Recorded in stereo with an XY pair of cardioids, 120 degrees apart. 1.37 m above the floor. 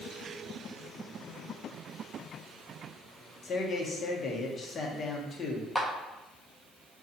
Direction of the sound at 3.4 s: 40° left.